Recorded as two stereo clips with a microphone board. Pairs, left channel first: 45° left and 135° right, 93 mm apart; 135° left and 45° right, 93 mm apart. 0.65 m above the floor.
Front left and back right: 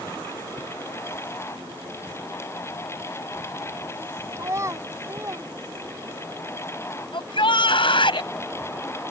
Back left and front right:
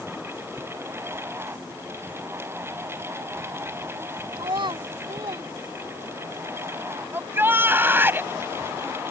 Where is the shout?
20° left.